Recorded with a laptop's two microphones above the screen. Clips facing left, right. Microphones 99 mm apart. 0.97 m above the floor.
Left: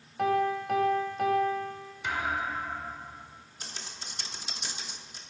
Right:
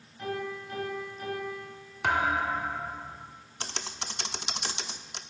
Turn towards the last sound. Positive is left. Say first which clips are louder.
# right 7 dB
turn(degrees=-65)  # may be behind; listen again after turning